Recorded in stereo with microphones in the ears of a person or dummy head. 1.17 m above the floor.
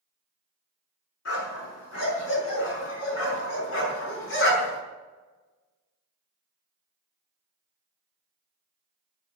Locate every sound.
1.2 s a dog barking: 80° left, 5.5 m; by 4.8 s 70° left (ahead or behind), 4.5 m